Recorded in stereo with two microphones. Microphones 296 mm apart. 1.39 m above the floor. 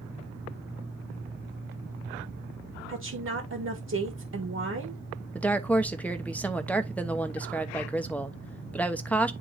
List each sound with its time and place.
2.9 s a woman speaking: 55° right (ahead or behind), 1.6 m
5.3 s a woman speaking: 5° left (ahead or behind), 1.0 m